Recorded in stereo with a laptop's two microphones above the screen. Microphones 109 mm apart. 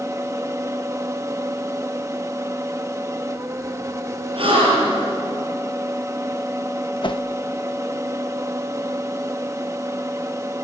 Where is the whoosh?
50° left (ahead or behind), 0.7 m.